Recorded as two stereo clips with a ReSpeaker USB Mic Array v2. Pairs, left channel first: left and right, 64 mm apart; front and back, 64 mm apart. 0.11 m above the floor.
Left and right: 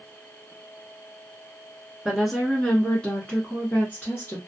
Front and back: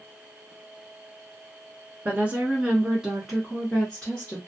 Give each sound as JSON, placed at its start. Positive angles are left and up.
{"t": 2.0, "sound": "a woman speaking", "azimuth_deg": -170, "distance_m": 1.1}